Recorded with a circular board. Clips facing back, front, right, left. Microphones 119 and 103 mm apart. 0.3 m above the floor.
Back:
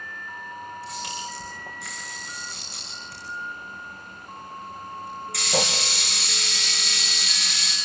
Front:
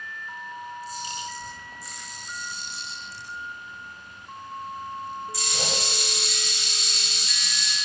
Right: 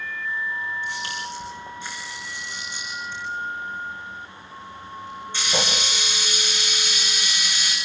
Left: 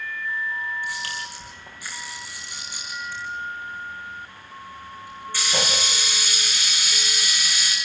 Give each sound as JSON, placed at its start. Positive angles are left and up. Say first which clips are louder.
{"t": 0.8, "sound": "a camera shutter", "louder": "back 1 dB, right 1 dB", "azimuth_deg": -160, "distance_m": 6.0}